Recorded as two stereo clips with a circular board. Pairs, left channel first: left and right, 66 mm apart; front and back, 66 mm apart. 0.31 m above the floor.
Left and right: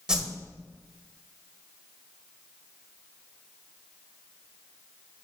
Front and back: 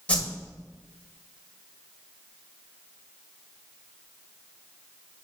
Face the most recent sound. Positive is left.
turn(degrees=-30)